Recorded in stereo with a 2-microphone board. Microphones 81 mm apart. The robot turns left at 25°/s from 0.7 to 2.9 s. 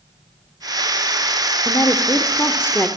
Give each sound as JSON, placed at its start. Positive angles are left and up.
{"t": 1.6, "sound": "a woman speaking", "azimuth_deg": 65, "distance_m": 1.2}